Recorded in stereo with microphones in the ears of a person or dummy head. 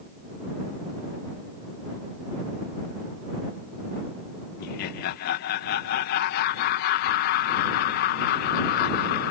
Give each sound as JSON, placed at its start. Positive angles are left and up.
{"t": 4.6, "sound": "laughter", "side_deg": 55}